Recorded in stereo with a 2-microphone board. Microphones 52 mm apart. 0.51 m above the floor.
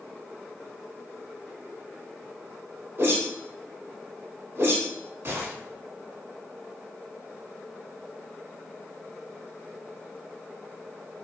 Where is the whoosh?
45° right (ahead or behind), 0.8 m.